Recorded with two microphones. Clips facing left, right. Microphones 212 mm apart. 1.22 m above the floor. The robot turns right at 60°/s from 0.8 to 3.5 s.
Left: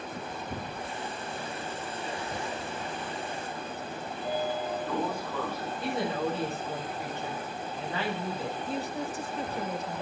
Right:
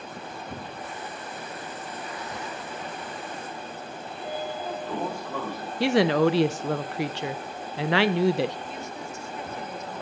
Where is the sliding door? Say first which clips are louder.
Left 2 dB; 75° right (ahead or behind), 7 m.